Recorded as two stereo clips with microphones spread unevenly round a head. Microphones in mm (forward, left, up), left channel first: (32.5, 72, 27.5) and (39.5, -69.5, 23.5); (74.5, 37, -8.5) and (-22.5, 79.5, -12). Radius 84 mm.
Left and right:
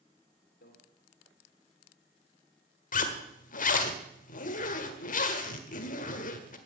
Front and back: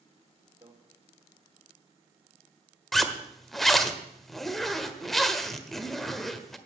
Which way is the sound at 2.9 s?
65° left.